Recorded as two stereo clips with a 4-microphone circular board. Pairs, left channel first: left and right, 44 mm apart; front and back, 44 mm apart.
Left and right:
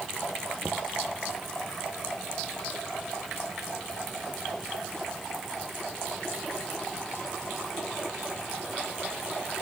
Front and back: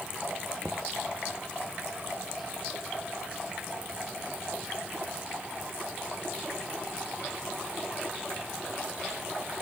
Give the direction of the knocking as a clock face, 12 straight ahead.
4 o'clock.